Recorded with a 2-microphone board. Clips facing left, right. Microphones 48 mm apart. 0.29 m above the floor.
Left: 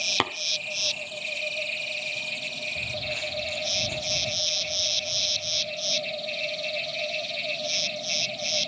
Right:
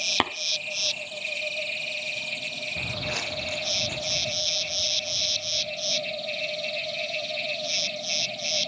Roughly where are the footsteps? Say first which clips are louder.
Right 2 dB; right.